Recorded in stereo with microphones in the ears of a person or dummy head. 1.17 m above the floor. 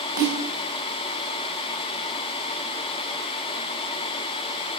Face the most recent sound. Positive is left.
turn(degrees=-20)  # may be behind; listen again after turning